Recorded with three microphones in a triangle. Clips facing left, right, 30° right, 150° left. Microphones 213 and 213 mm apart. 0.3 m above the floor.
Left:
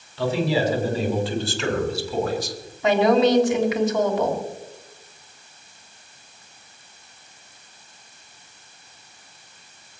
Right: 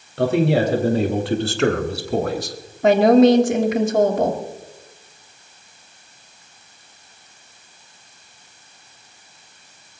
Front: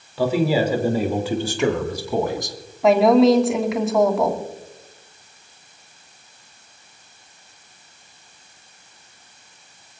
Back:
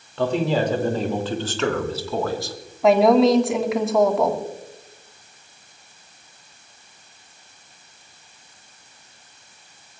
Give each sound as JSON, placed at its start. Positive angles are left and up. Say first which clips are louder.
{"t": 0.2, "sound": "a man speaking", "louder": "right 5 dB, front 2 dB", "azimuth_deg": -115, "distance_m": 4.5}
{"t": 2.8, "sound": "a woman speaking", "louder": "right 5 dB, front 1 dB", "azimuth_deg": -120, "distance_m": 3.0}